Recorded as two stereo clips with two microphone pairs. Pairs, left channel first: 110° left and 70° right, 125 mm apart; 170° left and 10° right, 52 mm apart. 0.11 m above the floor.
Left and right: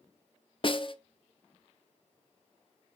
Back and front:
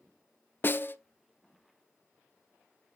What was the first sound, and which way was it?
A snare drum, 140° left.